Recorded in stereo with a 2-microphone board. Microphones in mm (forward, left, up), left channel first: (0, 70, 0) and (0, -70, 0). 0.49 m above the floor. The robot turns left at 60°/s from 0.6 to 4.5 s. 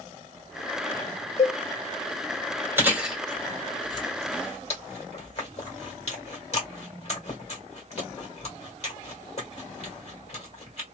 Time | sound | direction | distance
1.4 | a cowbell | 45° left (ahead or behind) | 0.7 m
2.8 | chewing | 15° right (ahead or behind) | 1.5 m